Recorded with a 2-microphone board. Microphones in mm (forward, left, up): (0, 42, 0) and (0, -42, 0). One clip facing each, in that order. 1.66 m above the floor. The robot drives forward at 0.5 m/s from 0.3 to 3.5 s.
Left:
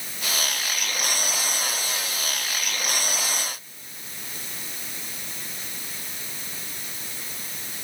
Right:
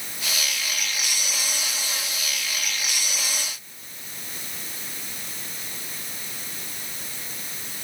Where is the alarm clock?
I don't hear an alarm clock.